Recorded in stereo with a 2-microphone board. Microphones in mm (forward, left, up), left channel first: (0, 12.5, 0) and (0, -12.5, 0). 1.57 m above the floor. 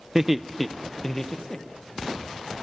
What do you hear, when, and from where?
0.1 s laughter: 15° right (ahead or behind), 0.6 m; by 2.0 s 25° left (ahead or behind), 1.6 m